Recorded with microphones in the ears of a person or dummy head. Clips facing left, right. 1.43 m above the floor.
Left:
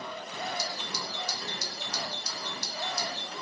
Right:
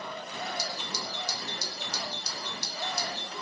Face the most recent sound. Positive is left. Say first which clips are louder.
# even
turn(degrees=-70)  # may be behind; listen again after turning